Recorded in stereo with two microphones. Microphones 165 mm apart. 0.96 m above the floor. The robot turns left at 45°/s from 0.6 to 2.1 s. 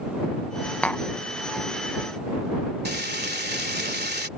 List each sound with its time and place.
0.8 s tapping: 10° left (ahead or behind); by 1.0 s 5° left (ahead or behind)
2.9 s frying: 80° right